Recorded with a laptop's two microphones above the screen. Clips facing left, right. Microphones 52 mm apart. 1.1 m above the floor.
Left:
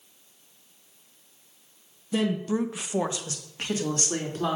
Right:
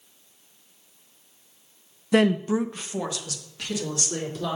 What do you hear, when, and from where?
2.1 s a woman speaking: 65° right (ahead or behind), 0.6 m; by 4.6 s 40° left (ahead or behind), 3 m